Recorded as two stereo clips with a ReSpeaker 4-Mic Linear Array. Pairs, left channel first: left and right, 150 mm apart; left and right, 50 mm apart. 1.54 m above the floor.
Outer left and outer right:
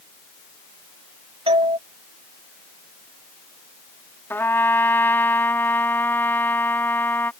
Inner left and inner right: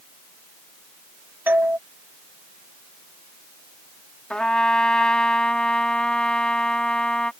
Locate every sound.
1.5 s a doorbell: 40° right (ahead or behind)
4.3 s a trumpet: 15° left (ahead or behind)